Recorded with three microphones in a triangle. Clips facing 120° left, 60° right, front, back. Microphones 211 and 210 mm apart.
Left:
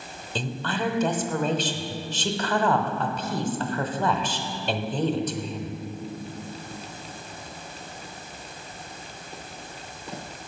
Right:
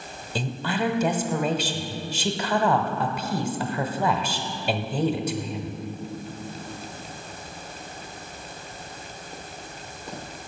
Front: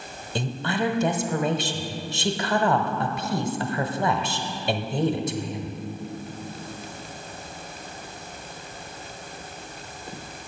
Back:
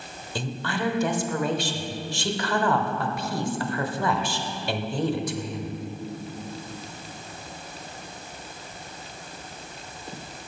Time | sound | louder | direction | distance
0.3 | a woman speaking | right 2 dB, front 3 dB | 5° left | 0.9 m